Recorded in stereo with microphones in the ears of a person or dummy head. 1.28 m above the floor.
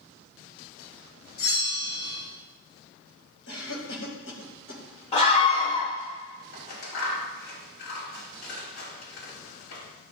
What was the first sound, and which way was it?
A bell, 65° left (ahead or behind).